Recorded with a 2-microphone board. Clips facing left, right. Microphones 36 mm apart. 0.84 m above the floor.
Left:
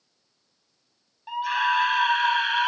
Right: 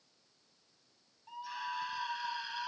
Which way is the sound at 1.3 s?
75° left (ahead or behind).